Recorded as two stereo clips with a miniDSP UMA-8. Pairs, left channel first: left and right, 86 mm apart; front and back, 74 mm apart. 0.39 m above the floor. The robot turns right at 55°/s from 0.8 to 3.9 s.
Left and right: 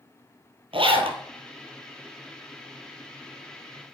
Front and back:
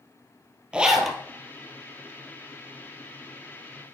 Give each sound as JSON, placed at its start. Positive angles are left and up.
{"t": 0.7, "sound": "a zipper", "azimuth_deg": -100, "distance_m": 1.5}